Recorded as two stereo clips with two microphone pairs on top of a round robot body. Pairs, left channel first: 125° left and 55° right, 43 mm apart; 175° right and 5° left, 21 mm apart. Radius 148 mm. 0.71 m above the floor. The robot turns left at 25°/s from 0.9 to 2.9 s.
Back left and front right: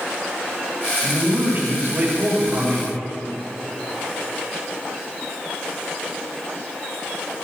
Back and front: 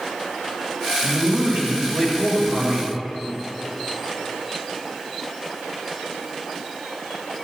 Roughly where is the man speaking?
Ahead.